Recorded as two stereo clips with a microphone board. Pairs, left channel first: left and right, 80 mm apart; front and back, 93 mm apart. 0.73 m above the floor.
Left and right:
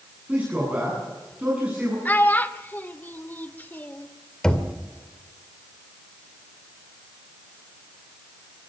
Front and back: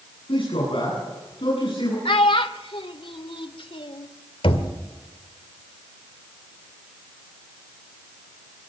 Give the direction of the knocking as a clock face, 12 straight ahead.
12 o'clock.